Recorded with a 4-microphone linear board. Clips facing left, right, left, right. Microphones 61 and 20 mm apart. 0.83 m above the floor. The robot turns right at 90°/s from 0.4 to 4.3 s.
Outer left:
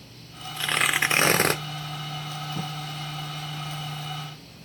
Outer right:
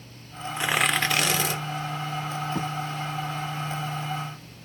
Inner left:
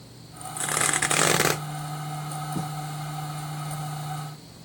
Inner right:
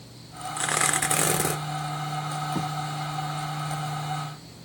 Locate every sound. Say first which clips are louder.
0.6 s tearing paper: even, even; 25° right, 1.0 m; by 1.6 s 70° left, 1.0 m
2.5 s writing: outer right 3 dB, inner right 1 dB; 60° right (ahead or behind), 5.5 m; by 2.7 s 70° right (ahead or behind), 5.5 m